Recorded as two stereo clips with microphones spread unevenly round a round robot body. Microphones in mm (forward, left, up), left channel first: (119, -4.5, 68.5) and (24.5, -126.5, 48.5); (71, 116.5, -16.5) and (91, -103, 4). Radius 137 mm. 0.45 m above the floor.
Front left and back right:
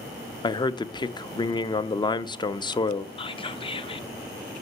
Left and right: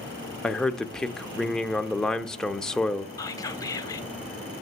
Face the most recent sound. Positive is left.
turn(degrees=55)